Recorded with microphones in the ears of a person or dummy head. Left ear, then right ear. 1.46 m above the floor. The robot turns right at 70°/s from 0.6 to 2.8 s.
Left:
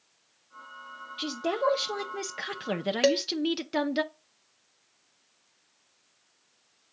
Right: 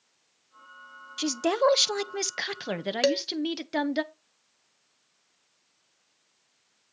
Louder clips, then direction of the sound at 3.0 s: Left 1 dB; 15° right (ahead or behind).